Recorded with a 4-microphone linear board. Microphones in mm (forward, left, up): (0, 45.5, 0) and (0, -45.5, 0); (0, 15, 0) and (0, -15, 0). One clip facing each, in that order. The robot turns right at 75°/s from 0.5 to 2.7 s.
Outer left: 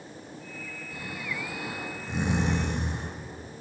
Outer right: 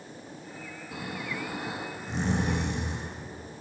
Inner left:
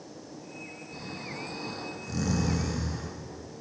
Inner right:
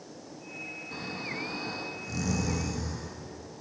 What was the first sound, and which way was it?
Snoring, 90° right.